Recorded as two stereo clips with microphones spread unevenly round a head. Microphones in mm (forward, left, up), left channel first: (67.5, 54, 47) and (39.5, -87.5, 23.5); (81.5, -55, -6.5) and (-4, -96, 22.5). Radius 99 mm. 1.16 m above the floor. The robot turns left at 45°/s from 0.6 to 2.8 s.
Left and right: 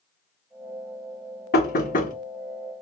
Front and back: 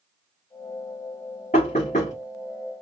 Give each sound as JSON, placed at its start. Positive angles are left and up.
{"t": 1.5, "sound": "knocking", "azimuth_deg": 80, "distance_m": 1.1}